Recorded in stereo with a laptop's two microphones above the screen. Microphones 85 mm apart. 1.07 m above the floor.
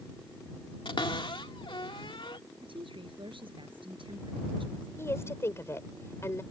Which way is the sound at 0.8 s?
85° left.